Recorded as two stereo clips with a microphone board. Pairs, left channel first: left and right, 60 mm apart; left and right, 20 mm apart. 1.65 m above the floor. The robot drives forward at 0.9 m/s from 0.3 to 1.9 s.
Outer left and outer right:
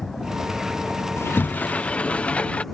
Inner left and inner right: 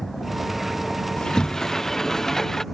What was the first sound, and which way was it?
A vehicle, 5° left (ahead or behind).